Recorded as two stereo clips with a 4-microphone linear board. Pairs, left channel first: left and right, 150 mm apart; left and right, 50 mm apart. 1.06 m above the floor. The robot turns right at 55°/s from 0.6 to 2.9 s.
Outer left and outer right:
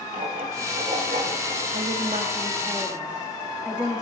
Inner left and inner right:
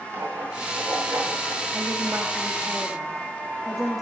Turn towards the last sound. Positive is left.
turn(degrees=-5)